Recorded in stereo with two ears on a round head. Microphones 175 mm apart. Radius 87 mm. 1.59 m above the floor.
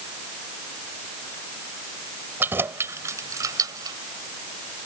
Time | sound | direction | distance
2.4 | keys jangling | 10° right (ahead or behind) | ?